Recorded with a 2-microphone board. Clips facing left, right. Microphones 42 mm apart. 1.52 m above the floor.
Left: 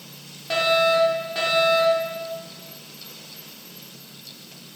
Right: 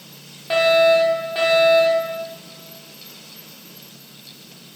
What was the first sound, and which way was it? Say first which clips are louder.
A fire alarm: right 5 dB; 15° right (ahead or behind).